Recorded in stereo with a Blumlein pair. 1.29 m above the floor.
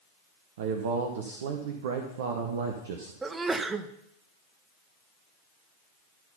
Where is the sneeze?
10° right, 0.7 m.